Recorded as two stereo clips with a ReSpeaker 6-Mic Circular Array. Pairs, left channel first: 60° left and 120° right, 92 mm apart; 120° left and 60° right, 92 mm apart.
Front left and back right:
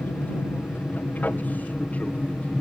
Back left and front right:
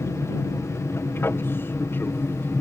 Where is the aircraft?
105° left.